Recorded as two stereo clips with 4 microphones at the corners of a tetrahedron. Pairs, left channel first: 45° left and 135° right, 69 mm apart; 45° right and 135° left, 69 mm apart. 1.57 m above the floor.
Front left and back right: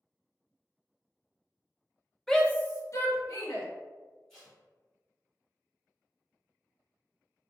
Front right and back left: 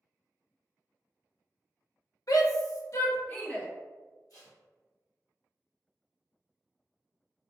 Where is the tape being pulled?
35° right, 1.9 m.